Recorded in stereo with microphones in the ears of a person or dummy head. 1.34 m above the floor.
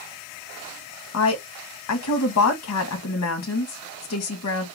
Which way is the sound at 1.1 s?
80° left.